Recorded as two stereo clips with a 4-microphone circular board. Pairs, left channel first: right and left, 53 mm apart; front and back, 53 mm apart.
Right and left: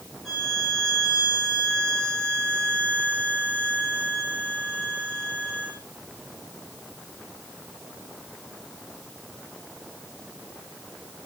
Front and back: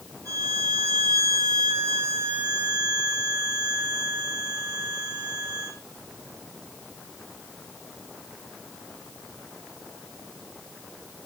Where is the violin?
175° right, 6 m.